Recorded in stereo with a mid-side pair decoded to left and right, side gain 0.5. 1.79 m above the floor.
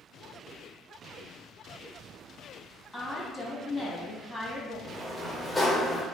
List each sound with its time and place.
2.9 s a woman speaking: 15° left, 1.0 m
4.9 s a sliding door: 10° left, 0.8 m